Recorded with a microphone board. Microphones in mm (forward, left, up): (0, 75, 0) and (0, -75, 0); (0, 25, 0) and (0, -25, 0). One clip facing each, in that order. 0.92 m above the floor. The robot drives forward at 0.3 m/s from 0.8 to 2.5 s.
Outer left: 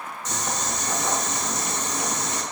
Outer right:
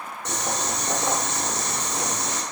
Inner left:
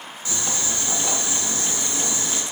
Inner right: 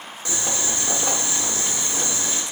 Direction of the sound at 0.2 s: 65° right (ahead or behind).